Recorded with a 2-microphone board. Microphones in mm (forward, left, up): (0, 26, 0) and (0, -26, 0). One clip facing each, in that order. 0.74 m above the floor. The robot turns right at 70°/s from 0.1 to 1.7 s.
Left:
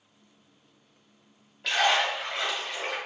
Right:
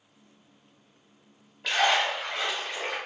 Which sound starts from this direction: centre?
A splash, at 1.6 s.